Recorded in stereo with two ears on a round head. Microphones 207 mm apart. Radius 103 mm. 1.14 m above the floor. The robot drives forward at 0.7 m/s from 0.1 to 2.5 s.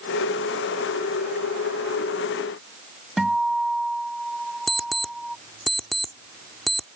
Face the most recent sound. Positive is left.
turn(degrees=0)  # may be behind; listen again after turning